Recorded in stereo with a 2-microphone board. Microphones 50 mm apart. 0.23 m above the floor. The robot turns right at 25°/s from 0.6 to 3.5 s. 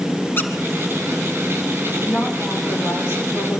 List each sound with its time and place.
0.4 s a squeak: 50° left (ahead or behind), 1.9 m
2.0 s a woman speaking: 45° left, 8.5 m; by 3.6 s 85° left, 8.5 m